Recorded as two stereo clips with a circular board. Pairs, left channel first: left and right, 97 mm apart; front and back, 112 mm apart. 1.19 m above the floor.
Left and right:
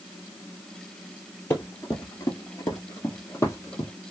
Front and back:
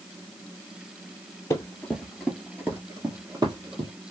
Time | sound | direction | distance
1.5 | running footsteps | 45° left | 1.4 m